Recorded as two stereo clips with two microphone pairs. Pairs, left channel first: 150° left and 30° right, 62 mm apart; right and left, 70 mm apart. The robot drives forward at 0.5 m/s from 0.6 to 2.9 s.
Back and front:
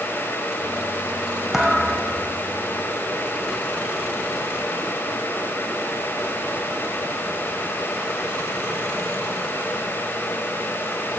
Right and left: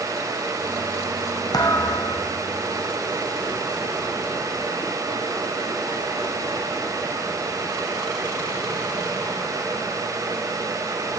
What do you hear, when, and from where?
1.5 s a thud: 110° right, 1.5 m; by 2.4 s 125° right, 1.7 m